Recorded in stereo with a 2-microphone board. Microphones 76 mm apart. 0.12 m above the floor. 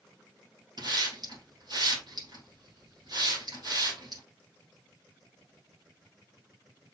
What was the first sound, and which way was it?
A hiss, 55° right (ahead or behind).